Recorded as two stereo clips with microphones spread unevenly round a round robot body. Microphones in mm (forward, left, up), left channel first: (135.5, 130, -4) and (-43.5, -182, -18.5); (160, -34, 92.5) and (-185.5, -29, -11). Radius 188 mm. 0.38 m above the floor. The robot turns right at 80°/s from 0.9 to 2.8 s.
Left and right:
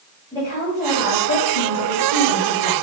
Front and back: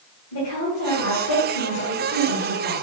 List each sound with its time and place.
0.3 s a woman speaking: 10° right, 1.9 m; by 2.8 s 135° left, 1.9 m